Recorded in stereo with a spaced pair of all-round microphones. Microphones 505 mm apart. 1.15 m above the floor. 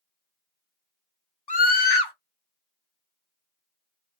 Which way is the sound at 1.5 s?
50° left (ahead or behind).